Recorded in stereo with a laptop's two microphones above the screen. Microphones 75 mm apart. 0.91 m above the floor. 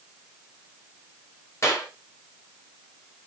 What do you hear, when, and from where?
1.6 s a clap: 35° left (ahead or behind), 3 m